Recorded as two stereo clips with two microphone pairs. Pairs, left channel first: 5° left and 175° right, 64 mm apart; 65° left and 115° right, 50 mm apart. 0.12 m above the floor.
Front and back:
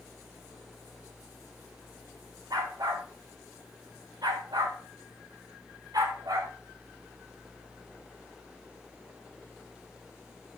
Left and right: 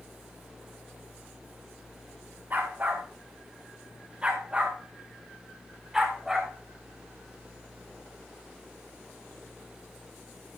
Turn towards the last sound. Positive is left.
turn(degrees=160)